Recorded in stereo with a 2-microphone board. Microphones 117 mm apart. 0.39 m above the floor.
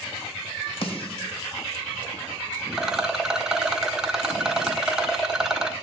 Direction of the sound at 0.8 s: 55° left (ahead or behind).